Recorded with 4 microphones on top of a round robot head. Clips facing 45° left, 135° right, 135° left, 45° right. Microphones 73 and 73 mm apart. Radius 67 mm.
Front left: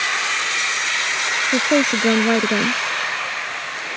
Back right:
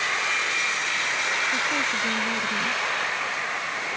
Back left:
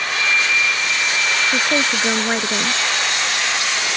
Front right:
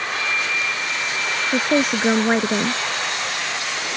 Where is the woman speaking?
35° left.